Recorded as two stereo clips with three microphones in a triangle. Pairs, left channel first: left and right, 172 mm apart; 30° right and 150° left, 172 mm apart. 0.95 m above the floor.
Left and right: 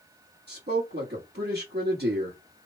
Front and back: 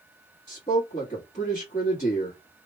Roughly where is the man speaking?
Right.